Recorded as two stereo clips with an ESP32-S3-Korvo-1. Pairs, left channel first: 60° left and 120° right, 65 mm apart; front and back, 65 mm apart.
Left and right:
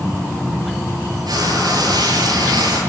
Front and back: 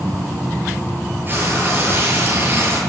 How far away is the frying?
About 9.5 m.